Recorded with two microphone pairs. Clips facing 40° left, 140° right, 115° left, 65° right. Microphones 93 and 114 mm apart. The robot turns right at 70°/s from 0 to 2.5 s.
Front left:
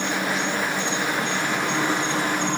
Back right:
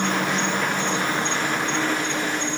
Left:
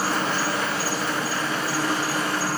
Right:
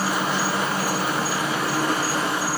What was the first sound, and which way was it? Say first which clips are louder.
An insect: back right 2 dB, right 1 dB; 160° right.